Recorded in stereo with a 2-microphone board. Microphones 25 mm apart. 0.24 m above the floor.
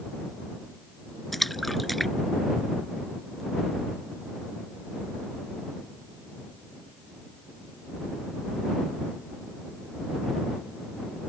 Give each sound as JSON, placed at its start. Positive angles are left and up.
{"t": 1.3, "sound": "a splash", "side_deg": 5}